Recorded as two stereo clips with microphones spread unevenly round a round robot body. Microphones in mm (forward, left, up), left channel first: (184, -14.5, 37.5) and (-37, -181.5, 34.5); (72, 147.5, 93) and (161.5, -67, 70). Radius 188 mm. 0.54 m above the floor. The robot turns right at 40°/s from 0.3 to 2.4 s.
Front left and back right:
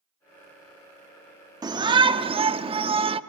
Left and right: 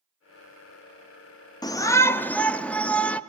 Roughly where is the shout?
Behind.